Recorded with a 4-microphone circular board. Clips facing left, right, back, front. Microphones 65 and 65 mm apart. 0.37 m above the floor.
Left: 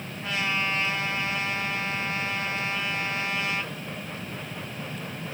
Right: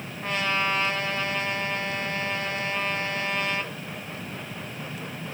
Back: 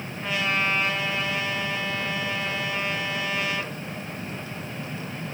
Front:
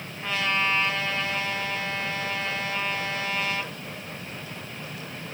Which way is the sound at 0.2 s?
105° right.